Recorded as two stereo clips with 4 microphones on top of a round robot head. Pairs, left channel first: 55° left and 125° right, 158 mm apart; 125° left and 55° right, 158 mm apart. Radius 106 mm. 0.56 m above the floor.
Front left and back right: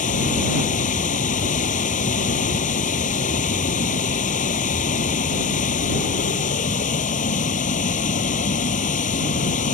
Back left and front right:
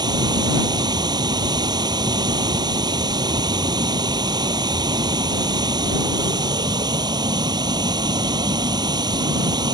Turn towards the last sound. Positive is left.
turn(degrees=10)